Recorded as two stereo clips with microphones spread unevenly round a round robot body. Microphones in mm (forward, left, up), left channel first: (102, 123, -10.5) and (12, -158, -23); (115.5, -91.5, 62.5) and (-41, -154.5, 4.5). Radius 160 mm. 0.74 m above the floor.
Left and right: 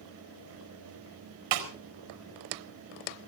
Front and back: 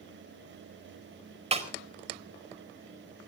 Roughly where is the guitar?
No guitar in this recording.